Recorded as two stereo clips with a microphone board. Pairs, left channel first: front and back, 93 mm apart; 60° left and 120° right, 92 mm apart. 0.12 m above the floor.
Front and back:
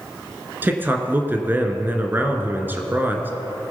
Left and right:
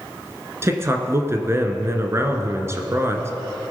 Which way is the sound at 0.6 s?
135° right.